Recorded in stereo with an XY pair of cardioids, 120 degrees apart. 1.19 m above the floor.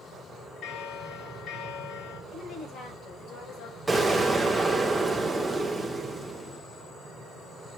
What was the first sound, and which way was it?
A bell, 70° left.